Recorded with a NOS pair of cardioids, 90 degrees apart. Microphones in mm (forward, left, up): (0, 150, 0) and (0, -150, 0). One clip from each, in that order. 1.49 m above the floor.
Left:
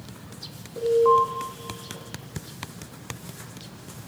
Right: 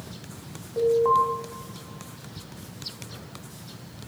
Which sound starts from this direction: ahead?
An alarm, at 0.8 s.